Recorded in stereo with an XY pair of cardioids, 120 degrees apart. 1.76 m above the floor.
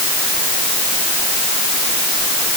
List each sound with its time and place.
Only background noise.